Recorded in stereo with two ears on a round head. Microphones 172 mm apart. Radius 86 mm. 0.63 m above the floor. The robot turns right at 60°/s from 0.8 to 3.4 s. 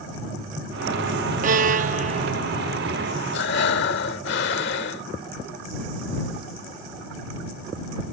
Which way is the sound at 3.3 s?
70° left (ahead or behind).